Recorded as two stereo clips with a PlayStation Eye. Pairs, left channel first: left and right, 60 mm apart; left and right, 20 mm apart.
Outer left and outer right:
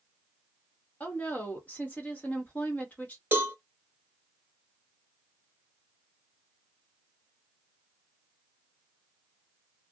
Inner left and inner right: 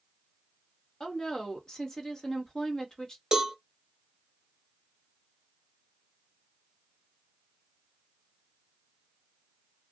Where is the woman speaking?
30° left (ahead or behind), 1.1 m.